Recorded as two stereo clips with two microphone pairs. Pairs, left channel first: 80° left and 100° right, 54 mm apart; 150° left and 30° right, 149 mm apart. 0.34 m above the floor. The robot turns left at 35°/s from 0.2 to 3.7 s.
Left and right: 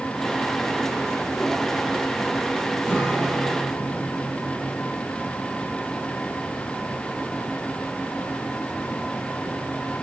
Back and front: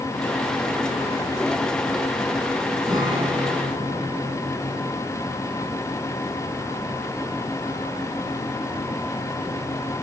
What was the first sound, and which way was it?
A guitar, 40° left.